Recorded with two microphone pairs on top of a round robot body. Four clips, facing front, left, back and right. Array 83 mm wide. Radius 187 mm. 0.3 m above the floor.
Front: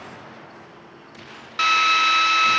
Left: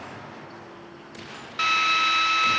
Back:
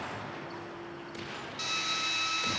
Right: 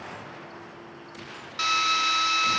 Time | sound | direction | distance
1.6 | a drill | 10° left | 1.0 m